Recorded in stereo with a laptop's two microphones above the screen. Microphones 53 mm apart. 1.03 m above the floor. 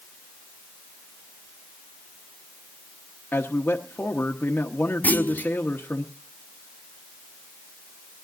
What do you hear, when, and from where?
3.3 s a man speaking: 40° left (ahead or behind), 1.1 m
5.0 s a clunk: 30° left (ahead or behind), 0.6 m